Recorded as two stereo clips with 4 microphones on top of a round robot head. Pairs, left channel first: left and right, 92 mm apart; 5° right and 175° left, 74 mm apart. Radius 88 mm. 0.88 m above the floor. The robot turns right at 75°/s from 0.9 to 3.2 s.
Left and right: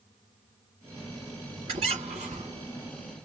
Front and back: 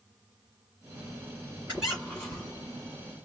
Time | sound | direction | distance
1.7 | a squeak | 105° right | 1.4 m